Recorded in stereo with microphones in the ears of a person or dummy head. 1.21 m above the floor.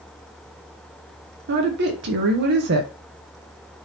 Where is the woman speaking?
55° right (ahead or behind), 0.7 m.